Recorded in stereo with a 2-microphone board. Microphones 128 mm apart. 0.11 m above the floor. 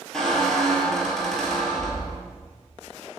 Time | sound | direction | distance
0.1 | a squeak | 5° left (ahead or behind) | 0.8 m